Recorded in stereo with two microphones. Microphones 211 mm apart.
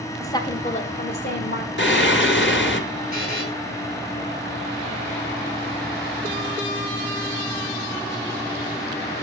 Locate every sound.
0.2 s a woman speaking: 15° left (ahead or behind), 1.4 m; by 1.7 s 60° left (ahead or behind), 1.8 m
1.8 s singing: 65° left (ahead or behind), 2.5 m
3.1 s a buzzer: 45° right (ahead or behind), 5.5 m